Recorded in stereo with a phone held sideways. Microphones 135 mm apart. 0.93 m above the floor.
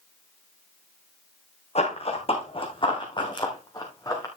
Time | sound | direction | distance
1.8 | running footsteps | 50° left (ahead or behind) | 4 m